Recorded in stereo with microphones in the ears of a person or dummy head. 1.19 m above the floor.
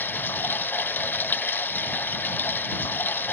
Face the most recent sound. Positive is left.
turn(degrees=10)  # may be behind; listen again after turning